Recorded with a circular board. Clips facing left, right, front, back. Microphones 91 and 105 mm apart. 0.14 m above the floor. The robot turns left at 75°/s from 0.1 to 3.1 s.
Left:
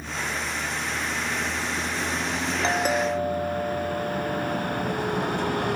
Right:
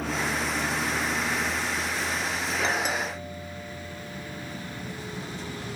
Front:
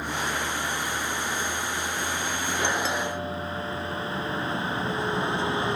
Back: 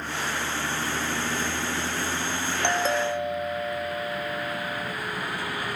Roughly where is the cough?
No cough in this recording.